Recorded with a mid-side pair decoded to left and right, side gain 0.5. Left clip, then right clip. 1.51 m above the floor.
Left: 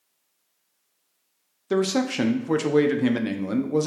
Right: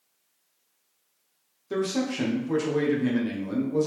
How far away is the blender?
No blender in this recording.